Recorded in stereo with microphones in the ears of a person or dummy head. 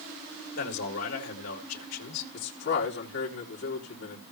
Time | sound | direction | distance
0.6 | a man speaking | 85° left | 3.5 m
2.3 | a man speaking | 70° left (ahead or behind) | 3 m